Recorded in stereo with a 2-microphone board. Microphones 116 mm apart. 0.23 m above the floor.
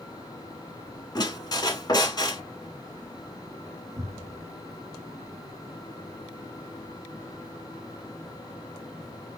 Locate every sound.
1.1 s a squeak: 40° left (ahead or behind), 1.0 m
4.0 s a cupboard door: 50° right (ahead or behind), 1.6 m